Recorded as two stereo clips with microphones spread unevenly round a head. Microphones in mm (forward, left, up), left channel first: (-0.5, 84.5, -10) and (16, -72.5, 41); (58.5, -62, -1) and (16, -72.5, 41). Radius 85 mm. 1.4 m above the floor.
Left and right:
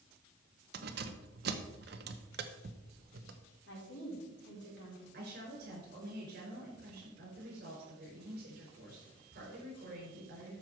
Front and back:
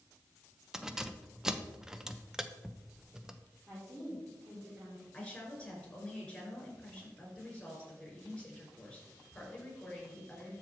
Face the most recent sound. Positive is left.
turn(degrees=-55)